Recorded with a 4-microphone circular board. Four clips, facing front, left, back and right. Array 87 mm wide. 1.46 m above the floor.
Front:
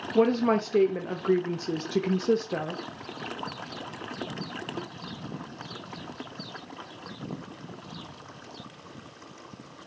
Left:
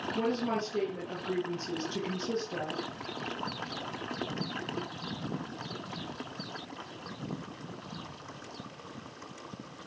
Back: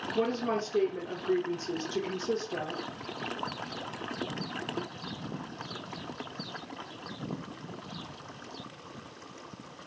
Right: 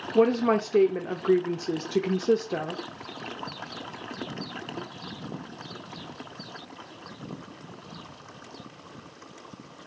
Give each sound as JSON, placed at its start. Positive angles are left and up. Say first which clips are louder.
{"t": 0.1, "sound": "a woman speaking", "louder": "right 11 dB, front 8 dB", "azimuth_deg": -50, "distance_m": 0.7}